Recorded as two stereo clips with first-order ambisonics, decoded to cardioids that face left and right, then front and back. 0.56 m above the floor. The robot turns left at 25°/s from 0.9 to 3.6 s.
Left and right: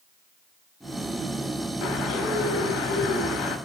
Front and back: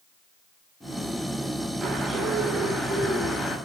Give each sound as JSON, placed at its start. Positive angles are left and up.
{"t": 1.8, "sound": "a bird", "azimuth_deg": 110, "distance_m": 4.0}